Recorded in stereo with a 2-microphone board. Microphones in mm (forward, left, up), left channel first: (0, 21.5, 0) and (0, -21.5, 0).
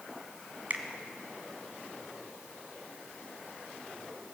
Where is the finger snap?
40° right (ahead or behind), 1.3 m.